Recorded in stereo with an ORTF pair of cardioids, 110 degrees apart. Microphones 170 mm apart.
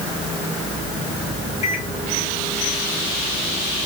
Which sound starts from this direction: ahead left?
A microwave, at 1.6 s.